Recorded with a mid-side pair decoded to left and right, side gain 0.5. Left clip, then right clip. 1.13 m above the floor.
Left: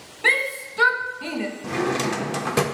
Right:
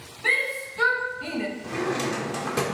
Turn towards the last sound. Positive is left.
turn(degrees=40)